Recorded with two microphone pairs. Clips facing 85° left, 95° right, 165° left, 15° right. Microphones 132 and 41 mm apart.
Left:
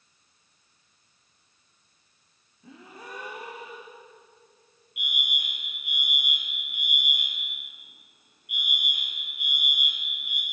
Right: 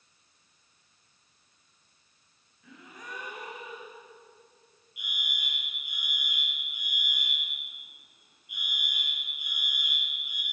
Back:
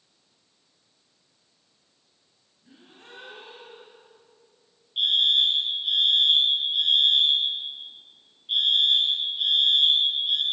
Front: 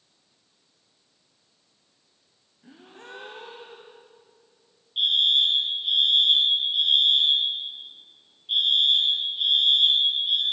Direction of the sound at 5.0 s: 75° left.